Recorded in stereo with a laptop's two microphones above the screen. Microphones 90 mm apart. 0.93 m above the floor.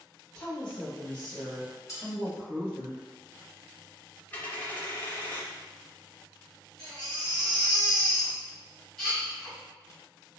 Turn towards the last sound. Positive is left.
turn(degrees=5)  # may be behind; listen again after turning